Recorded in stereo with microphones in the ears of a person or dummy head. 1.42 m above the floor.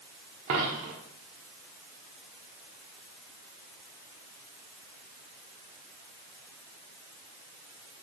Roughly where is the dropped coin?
Right.